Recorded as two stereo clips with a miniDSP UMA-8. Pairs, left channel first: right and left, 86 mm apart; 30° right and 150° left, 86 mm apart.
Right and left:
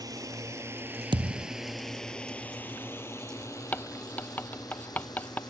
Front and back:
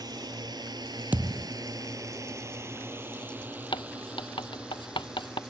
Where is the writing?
20° right.